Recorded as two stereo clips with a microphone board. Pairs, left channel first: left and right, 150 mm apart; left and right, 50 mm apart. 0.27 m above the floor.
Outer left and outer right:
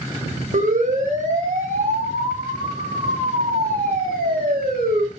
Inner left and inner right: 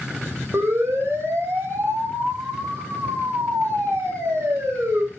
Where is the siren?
60° right (ahead or behind), 10 m; by 5.0 s 80° right, 10 m.